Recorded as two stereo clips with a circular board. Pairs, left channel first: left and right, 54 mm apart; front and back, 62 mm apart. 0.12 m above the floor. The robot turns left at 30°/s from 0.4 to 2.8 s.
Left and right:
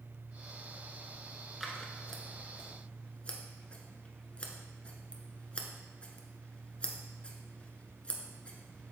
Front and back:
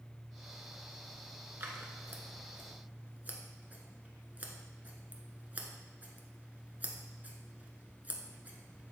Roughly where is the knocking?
I don't hear knocking.